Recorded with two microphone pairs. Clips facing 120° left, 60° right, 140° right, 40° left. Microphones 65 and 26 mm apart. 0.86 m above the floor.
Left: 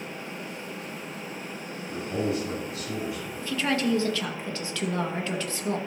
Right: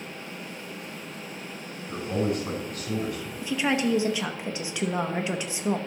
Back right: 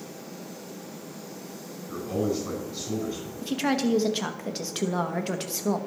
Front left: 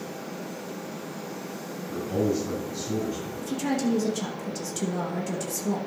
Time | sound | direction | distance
1.9 | a man speaking | 85° right | 5 m
3.4 | a woman speaking | 130° right | 1.0 m